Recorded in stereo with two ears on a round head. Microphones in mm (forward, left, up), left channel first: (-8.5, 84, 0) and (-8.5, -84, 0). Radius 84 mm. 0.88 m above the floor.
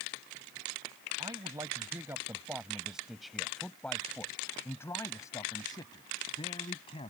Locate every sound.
1.2 s a man speaking: 20° right (ahead or behind); by 7.1 s 30° left (ahead or behind)